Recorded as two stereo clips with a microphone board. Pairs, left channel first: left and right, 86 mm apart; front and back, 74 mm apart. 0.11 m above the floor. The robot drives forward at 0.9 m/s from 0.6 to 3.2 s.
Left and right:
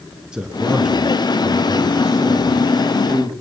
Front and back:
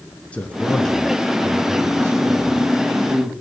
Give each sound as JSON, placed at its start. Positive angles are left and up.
{"t": 0.3, "sound": "a man speaking", "azimuth_deg": -30, "distance_m": 1.6}